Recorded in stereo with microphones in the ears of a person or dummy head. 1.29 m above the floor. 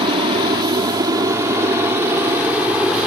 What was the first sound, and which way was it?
An aircraft, 30° right (ahead or behind).